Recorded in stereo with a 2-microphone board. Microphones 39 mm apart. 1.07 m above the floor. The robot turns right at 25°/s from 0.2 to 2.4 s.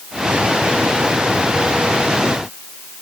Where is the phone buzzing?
I don't hear a phone buzzing.